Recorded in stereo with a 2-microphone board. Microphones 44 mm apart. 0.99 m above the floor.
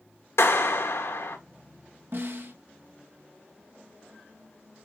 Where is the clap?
75° left (ahead or behind), 1.8 m.